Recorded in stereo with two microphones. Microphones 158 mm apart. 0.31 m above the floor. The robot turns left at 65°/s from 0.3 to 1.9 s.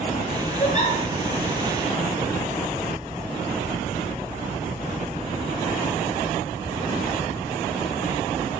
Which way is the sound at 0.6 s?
50° left (ahead or behind).